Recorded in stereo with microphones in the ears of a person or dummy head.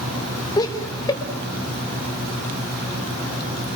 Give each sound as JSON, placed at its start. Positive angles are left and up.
{"t": 0.6, "sound": "laughter", "side_deg": 25, "distance_m": 3.5}